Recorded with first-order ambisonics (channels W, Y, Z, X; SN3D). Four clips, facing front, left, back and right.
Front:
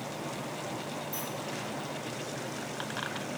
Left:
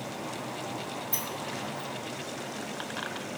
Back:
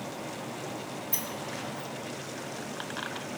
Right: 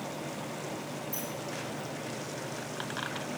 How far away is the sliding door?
About 1.5 m.